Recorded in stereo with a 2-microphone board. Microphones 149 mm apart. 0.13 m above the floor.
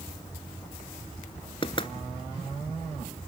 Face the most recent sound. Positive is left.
turn(degrees=35)  # may be behind; listen again after turning